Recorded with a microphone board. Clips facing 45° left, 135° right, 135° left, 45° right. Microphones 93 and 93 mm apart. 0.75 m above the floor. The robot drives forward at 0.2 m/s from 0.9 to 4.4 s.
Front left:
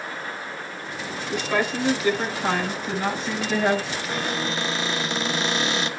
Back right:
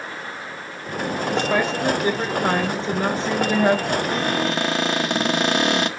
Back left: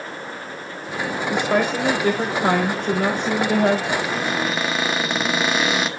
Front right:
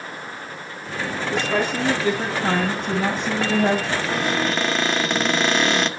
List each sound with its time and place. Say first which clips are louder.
1.3 s a woman speaking: back right 2 dB, back left 3 dB; 165° left, 3.5 m
3.9 s a cupboard door: back right 6 dB, even; 140° right, 1.4 m; by 5.9 s 145° right, 1.5 m